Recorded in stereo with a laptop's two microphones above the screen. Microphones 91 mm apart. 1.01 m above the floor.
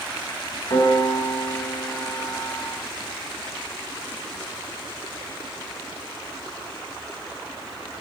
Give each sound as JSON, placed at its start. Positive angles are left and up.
{"t": 0.7, "sound": "a piano", "side_deg": 60, "distance_m": 3.5}